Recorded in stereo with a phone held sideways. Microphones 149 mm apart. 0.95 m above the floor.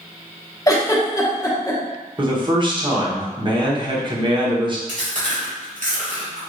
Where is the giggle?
25° left (ahead or behind), 0.9 m.